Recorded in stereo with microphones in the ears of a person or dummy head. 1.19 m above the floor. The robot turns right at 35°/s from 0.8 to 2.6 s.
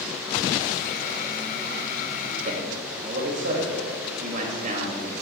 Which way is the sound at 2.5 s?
40° right (ahead or behind).